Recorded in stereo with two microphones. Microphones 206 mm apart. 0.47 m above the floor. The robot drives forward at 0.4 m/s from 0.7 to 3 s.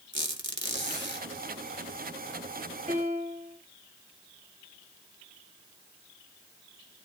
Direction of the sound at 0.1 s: 75° right (ahead or behind).